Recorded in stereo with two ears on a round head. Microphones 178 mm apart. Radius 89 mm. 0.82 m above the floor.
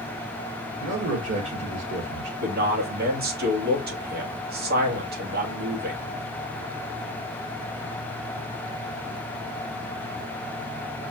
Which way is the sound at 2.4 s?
50° right (ahead or behind).